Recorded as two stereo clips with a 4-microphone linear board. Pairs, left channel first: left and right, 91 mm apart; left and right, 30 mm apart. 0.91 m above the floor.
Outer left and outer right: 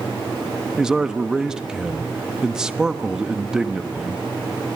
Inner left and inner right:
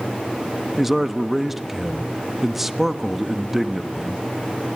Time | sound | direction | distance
0.8 | a man speaking | 10° right (ahead or behind) | 1.1 m